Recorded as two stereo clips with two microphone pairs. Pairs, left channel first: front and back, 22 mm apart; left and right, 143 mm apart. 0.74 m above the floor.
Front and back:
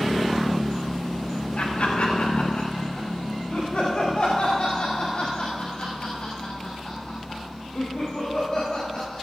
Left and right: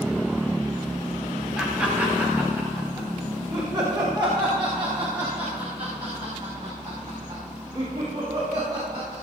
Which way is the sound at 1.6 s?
5° right.